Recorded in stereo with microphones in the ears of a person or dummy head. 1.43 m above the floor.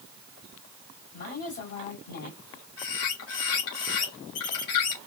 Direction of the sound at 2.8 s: 75° left (ahead or behind).